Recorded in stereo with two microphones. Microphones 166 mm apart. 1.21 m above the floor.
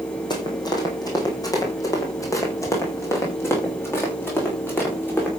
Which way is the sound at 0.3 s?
25° left (ahead or behind).